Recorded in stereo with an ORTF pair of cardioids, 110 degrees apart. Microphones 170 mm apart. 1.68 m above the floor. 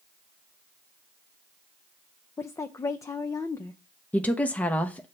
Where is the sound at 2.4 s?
20° left, 0.6 m.